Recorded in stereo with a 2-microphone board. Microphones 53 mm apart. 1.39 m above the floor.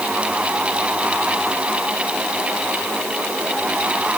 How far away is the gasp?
No gasp in this recording.